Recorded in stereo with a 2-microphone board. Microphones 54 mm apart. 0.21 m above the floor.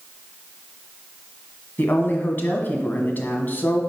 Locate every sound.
1.8 s a woman speaking: 35° left (ahead or behind), 1.5 m